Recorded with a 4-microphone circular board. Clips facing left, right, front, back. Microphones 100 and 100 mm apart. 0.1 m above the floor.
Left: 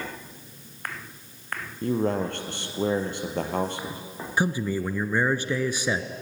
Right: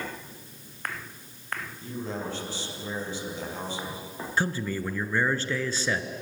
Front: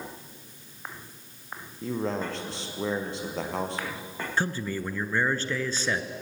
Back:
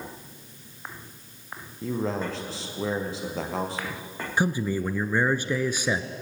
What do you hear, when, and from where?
1.8 s a man speaking: 90° left, 2.5 m
4.4 s a man speaking: 135° left, 1.1 m